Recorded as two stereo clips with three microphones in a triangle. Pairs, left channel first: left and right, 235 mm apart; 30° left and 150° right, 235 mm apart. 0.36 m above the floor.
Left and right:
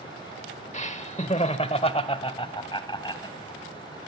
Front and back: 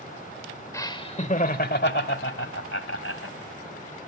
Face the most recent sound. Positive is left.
turn(degrees=20)